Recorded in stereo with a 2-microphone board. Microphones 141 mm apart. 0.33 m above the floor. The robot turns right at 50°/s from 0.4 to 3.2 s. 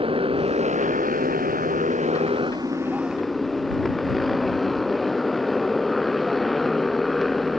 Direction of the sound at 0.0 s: 140° right.